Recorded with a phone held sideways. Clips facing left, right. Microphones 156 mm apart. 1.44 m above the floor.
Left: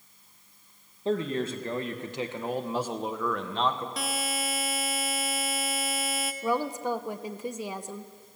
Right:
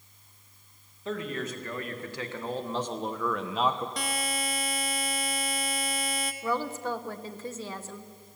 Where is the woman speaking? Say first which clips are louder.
Left 3 dB; 15° left (ahead or behind), 1.0 m.